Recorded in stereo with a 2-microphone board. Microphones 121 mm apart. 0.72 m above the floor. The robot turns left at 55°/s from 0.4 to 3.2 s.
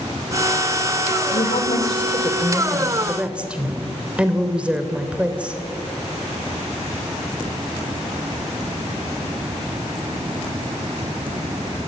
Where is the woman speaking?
95° left, 3 m; by 5.5 s 10° right, 3 m.